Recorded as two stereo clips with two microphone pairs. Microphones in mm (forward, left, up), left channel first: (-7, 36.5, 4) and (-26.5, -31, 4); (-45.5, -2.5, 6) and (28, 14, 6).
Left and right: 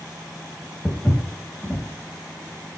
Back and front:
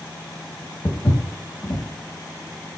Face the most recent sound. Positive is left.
turn(degrees=140)